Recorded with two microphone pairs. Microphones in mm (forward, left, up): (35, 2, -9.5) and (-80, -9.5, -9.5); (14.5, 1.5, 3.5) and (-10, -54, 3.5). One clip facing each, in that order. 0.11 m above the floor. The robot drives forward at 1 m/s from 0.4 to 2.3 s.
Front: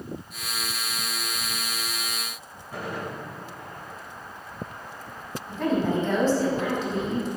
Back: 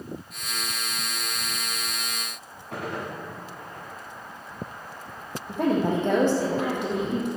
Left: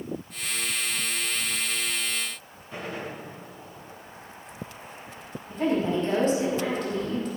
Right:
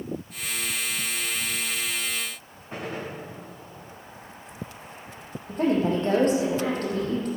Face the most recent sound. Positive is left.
turn(degrees=-150)